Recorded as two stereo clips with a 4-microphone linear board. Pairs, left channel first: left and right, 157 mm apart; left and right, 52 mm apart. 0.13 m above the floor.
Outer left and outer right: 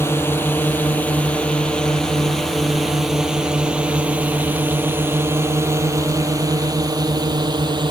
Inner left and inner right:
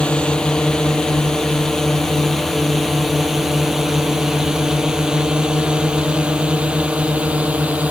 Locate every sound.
0.0 s a drone: 15° left (ahead or behind); by 7.9 s 30° right (ahead or behind)